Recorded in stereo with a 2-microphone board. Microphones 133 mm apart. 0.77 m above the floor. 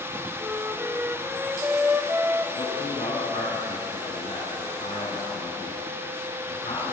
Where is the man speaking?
75° left (ahead or behind), 10 m.